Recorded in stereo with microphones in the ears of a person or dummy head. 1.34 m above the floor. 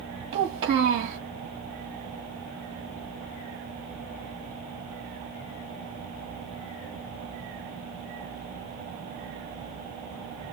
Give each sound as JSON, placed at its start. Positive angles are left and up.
{"t": 0.3, "sound": "a child speaking", "side_deg": -55, "distance_m": 1.7}